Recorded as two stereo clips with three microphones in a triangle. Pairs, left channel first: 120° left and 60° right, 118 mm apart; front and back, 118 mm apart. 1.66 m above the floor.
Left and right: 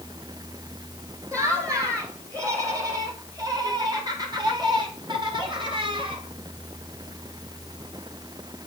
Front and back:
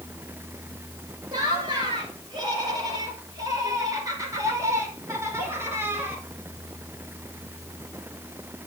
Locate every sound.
1.3 s laughter: 125° right, 6.5 m; by 6.2 s 105° right, 4 m